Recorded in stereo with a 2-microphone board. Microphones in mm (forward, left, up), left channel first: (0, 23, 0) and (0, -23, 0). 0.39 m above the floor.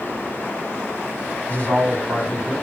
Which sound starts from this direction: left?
A woman speaking, at 1.5 s.